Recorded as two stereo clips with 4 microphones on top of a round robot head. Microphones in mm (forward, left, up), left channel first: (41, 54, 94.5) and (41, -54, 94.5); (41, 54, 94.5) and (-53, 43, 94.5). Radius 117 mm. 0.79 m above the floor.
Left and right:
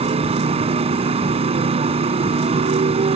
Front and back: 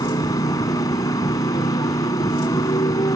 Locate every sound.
0.0 s a motorcycle: 55° right